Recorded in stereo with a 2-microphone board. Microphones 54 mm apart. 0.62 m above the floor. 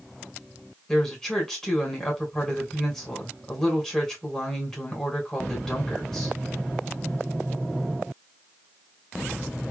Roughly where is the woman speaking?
Centre.